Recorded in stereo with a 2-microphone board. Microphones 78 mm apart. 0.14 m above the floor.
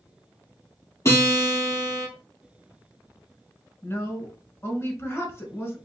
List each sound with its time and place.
1.1 s a guitar: 40° left (ahead or behind), 2 m
3.8 s a woman speaking: 30° left (ahead or behind), 1.4 m